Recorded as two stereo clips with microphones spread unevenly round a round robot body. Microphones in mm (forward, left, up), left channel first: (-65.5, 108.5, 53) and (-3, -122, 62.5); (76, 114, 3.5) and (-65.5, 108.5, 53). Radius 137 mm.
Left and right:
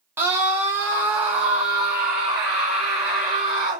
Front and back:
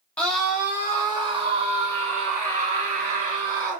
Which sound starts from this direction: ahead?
A scream, at 0.2 s.